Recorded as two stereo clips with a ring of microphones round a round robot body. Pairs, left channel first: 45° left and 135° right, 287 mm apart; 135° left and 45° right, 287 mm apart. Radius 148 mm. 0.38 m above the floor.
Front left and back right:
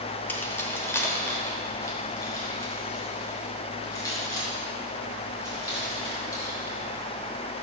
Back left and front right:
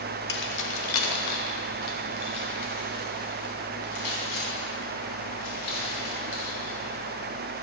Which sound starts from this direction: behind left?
Keys jangling, at 0.3 s.